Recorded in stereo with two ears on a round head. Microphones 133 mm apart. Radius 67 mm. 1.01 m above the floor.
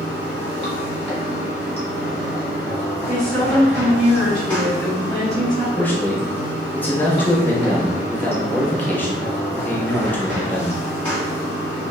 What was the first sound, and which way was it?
Running water, 15° left (ahead or behind).